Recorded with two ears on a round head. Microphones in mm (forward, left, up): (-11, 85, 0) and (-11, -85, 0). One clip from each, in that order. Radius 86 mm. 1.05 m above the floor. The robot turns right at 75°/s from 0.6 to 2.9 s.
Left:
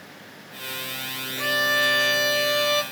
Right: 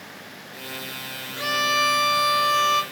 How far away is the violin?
About 0.9 m.